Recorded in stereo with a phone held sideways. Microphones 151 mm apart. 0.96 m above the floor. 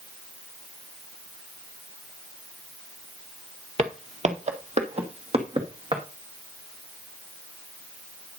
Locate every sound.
3.8 s footsteps: 45° right (ahead or behind), 1.3 m; by 6.0 s 35° right (ahead or behind), 3 m